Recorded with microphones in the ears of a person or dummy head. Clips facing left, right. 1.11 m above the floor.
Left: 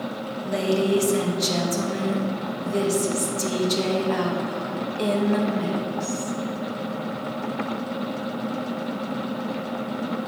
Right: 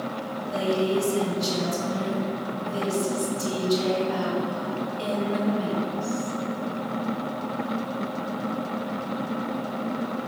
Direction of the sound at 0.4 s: 70° left (ahead or behind).